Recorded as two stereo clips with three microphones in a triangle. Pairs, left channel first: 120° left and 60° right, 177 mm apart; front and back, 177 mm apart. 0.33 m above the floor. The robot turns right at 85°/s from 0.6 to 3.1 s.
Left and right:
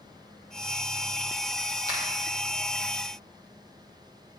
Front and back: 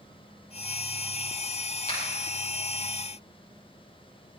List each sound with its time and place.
1.9 s a finger snap: 40° right, 9 m; by 2.0 s 30° right, 9 m